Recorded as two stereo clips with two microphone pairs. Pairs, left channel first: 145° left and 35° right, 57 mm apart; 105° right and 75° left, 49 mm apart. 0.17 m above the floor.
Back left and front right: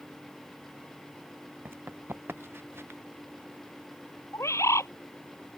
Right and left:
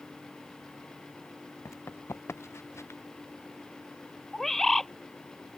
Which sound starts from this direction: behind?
A bird, at 4.3 s.